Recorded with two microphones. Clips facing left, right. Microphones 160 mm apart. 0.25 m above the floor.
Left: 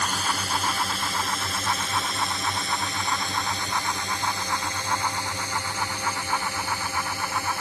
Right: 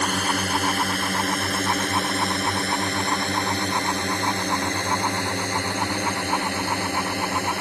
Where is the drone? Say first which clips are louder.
Right 5 dB; 60° right (ahead or behind); by 7.6 s 65° right (ahead or behind).